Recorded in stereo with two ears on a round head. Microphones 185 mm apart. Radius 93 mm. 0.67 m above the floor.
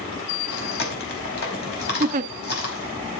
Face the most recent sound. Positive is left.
turn(degrees=-40)  # may be behind; listen again after turning